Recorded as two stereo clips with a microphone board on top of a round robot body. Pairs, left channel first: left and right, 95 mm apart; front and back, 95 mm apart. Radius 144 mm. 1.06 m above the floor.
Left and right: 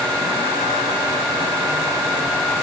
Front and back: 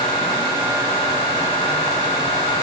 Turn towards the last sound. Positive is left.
No sound to turn to.